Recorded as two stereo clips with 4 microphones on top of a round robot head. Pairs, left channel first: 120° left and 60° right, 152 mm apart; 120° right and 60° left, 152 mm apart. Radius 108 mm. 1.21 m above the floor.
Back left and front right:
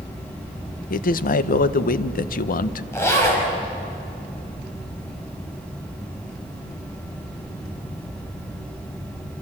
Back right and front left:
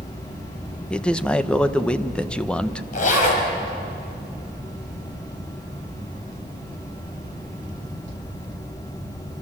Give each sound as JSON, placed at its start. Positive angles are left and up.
{"t": 0.9, "sound": "a man speaking", "azimuth_deg": 155, "distance_m": 0.9}
{"t": 2.9, "sound": "a zipper", "azimuth_deg": -165, "distance_m": 5.5}